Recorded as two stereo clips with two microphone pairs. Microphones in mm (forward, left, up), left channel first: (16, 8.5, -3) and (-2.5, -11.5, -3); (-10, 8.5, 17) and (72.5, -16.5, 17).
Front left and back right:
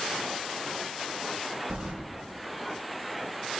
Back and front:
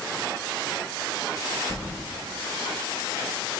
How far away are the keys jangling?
About 1.0 m.